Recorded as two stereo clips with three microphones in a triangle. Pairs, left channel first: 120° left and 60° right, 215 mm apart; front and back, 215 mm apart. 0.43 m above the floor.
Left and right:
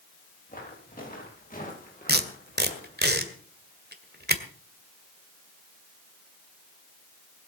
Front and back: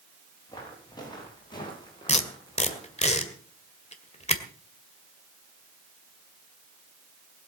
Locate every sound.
0.5 s footsteps: 70° left, 7.5 m
2.1 s tape being pulled: 50° right, 1.7 m